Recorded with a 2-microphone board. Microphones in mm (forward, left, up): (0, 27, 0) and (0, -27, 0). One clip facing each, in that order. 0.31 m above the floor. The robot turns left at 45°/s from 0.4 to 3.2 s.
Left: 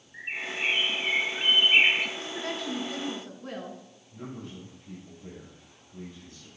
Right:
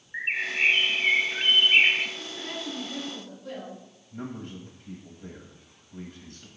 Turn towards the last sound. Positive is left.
turn(degrees=-55)  # may be behind; listen again after turning